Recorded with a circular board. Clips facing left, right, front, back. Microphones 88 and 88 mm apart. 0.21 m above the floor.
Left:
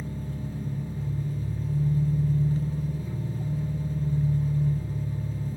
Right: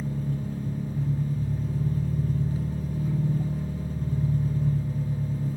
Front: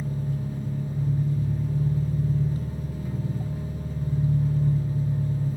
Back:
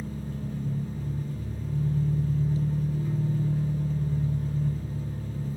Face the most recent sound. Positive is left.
turn(degrees=-75)